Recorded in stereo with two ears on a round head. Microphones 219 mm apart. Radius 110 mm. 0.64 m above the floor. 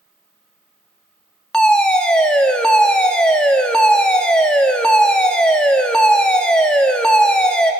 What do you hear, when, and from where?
1.5 s a fire alarm: 5° left (ahead or behind), 1.9 m